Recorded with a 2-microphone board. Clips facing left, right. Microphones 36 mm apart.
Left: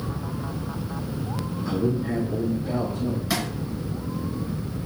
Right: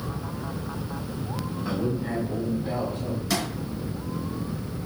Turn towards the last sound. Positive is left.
turn(degrees=5)  # may be behind; listen again after turning